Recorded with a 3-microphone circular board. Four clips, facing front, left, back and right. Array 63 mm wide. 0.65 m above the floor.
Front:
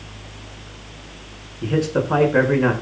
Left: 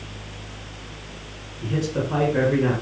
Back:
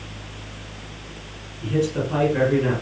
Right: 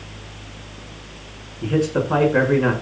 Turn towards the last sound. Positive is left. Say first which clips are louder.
# right 5 dB, front 2 dB
turn(degrees=-40)